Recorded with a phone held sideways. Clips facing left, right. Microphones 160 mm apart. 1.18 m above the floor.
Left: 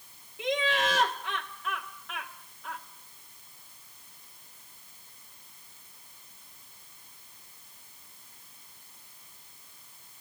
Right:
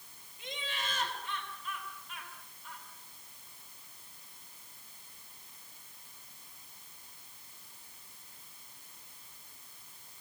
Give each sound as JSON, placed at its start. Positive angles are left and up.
{"t": 0.4, "sound": "laughter", "side_deg": 70, "distance_m": 2.0}